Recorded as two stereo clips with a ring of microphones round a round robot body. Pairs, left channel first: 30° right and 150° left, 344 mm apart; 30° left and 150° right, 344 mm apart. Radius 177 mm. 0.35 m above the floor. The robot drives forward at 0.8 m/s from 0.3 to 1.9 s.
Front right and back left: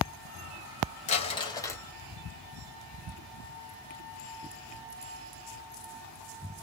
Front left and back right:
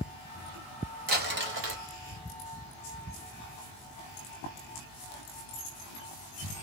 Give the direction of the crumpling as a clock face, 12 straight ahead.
3 o'clock.